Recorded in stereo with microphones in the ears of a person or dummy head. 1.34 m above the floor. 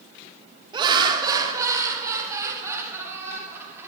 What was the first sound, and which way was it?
Laughter, 25° right (ahead or behind).